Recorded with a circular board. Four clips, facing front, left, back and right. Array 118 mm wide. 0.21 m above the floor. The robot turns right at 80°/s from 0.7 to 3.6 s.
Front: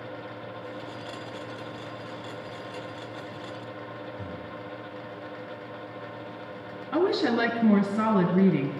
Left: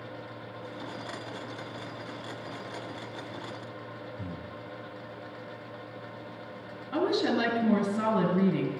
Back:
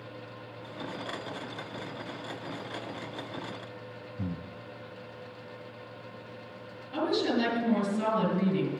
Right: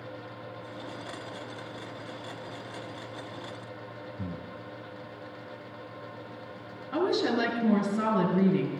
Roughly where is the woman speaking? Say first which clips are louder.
Even, front 4 dB; ahead.